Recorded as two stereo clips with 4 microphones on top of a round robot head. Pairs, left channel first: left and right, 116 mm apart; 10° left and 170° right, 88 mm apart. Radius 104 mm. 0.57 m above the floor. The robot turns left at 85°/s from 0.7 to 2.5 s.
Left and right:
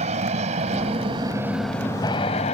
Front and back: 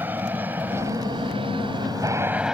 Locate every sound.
0.0 s an aircraft: 100° right; by 2.5 s 110° left